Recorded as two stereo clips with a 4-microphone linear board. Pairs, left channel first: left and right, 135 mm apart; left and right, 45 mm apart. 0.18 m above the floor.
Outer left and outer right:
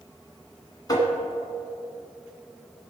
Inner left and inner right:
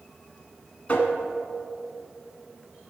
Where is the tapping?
30° left (ahead or behind), 2.0 m.